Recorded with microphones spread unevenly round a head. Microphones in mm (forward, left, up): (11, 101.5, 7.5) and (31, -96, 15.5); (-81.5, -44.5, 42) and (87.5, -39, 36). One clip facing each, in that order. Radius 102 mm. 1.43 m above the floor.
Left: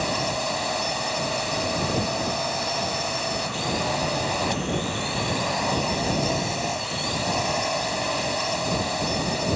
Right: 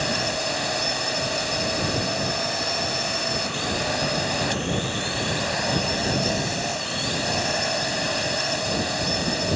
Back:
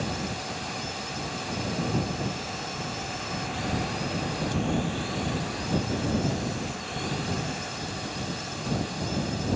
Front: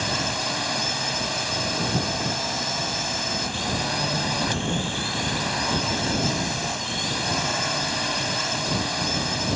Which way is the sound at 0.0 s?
5° right.